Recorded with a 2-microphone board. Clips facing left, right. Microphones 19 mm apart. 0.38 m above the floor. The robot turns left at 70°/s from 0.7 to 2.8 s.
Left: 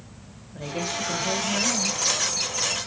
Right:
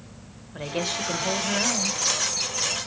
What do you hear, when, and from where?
0.5 s a woman speaking: 75° right, 1.0 m; by 2.0 s 165° right, 1.0 m